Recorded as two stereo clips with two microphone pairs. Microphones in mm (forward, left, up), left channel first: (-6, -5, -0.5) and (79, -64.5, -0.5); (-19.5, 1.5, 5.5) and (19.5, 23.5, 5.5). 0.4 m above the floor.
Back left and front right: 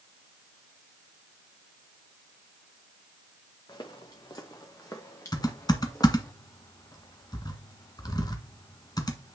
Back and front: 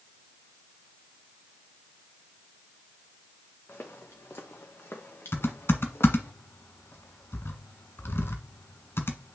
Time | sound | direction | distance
3.7 | footsteps | 175° right | 2 m
5.3 | typing on a keyboard | 165° right | 1.4 m